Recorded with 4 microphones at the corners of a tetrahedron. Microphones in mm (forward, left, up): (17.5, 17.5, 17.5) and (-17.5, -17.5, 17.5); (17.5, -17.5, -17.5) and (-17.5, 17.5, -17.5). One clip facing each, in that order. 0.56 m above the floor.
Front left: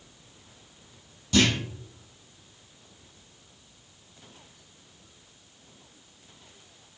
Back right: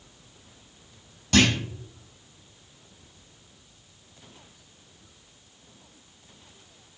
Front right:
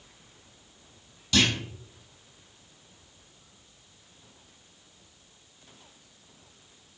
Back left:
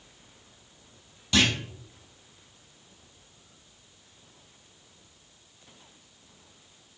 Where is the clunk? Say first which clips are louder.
Back right 2 dB, back left 1 dB; 155° right, 3 m.